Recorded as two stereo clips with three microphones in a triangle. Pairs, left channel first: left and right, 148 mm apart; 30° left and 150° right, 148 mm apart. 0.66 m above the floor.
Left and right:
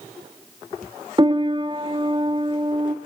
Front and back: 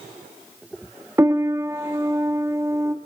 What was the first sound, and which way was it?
A piano, 95° right.